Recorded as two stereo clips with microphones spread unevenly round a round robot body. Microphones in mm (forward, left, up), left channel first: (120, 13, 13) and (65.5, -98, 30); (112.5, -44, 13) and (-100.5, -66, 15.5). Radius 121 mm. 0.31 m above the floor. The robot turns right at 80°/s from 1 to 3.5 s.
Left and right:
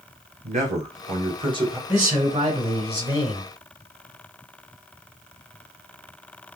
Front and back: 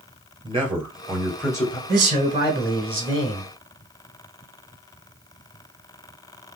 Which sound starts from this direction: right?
A man speaking, at 0.4 s.